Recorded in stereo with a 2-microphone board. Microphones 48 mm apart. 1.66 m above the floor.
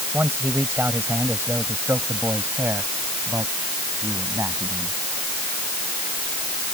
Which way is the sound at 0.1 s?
50° right (ahead or behind).